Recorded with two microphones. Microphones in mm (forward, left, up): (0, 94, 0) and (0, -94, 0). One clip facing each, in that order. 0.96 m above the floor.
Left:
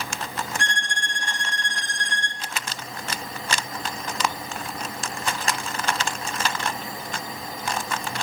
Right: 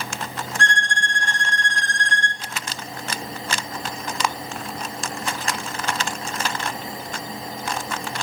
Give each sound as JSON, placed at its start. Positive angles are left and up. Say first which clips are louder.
{"t": 0.6, "sound": "a violin", "louder": "right 5 dB", "side_deg": 15, "distance_m": 2.5}